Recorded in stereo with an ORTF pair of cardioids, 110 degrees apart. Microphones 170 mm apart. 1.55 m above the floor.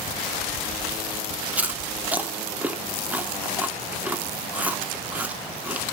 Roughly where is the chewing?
Ahead.